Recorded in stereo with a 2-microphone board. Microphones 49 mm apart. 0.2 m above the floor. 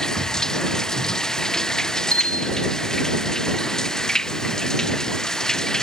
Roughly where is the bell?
Left.